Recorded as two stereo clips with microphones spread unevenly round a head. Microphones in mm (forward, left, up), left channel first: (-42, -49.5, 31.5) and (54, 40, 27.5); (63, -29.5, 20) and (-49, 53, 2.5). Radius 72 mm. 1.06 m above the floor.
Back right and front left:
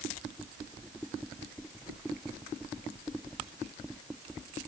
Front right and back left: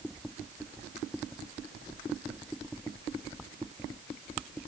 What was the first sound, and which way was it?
Only background noise.